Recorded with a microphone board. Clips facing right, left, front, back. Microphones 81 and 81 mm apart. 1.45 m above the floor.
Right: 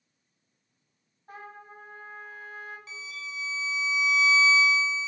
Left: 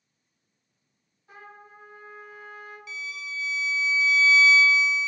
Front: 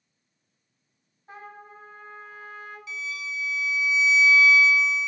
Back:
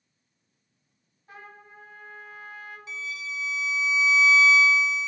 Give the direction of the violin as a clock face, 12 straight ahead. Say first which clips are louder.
Left 3 dB, front 1 dB; 5 o'clock.